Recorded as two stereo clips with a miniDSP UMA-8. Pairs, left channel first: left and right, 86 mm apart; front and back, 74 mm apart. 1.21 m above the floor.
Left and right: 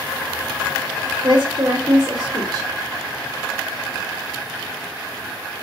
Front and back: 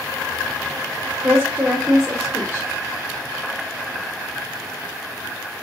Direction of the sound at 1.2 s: 120° right.